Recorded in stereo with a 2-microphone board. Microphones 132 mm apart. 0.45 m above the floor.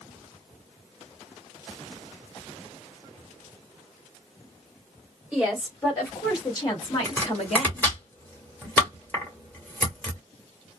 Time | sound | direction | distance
5.3 | a woman speaking | 5° left (ahead or behind) | 1.4 m
7.0 | chopping | 15° left (ahead or behind) | 1.3 m